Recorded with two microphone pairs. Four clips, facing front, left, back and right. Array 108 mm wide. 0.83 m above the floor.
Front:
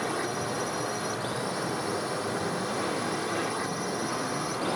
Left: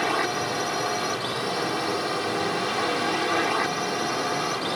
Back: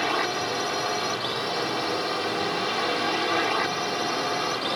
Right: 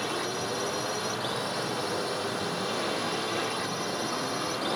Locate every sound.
0.0 s a drone: 130° left; by 4.8 s 135° left